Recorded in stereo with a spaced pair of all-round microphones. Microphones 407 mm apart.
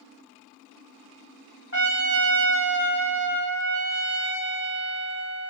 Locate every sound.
1.7 s a trumpet: 30° left (ahead or behind), 1.6 m